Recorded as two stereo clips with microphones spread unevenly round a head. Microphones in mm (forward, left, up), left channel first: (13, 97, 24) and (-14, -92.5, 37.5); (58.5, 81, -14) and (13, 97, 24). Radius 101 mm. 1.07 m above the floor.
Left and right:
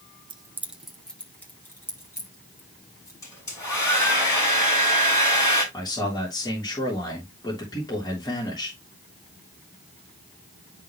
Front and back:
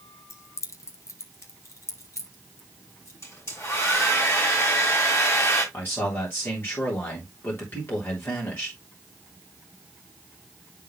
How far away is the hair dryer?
About 6 m.